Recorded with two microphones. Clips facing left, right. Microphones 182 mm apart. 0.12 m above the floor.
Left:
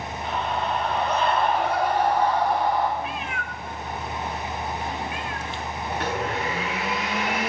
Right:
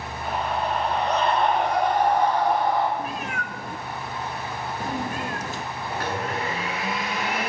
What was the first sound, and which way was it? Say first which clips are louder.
A scream: right 1 dB; 10° right (ahead or behind).